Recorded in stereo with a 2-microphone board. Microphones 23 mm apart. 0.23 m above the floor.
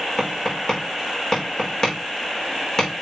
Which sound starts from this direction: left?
Tapping, at 0.2 s.